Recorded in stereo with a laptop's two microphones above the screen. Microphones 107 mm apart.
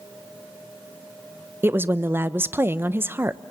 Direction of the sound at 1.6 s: 20° right (ahead or behind).